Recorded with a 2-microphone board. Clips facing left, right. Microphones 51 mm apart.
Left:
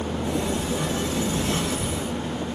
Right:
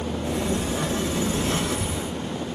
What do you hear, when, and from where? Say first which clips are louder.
0.2 s a sliding door: right 1 dB; 25° right (ahead or behind), 1.6 m